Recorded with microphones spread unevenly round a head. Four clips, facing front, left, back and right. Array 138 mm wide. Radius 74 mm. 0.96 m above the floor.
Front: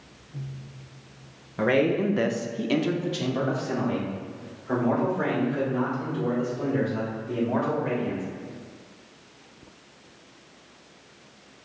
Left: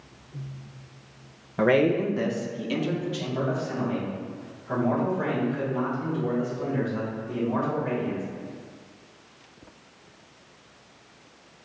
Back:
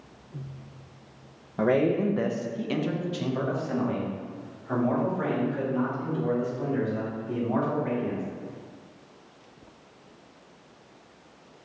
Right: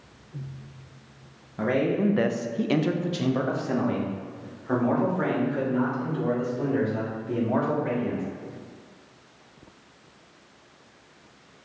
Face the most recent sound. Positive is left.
turn(degrees=-65)